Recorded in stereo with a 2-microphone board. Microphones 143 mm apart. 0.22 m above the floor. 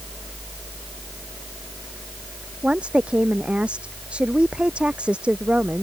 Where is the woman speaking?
10° right (ahead or behind).